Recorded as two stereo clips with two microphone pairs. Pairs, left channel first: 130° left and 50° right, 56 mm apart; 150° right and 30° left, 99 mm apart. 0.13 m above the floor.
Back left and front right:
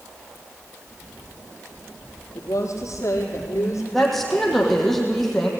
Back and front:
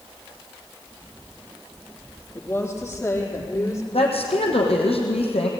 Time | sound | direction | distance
2.4 | a woman speaking | 145° left | 4 m
3.9 | a woman speaking | 145° right | 5 m